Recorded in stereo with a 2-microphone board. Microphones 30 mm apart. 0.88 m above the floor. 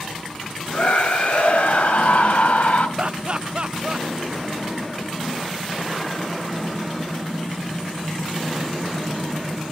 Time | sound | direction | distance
0.7 | a scream | 50° left (ahead or behind) | 5 m
3.0 | laughter | 35° right (ahead or behind) | 0.5 m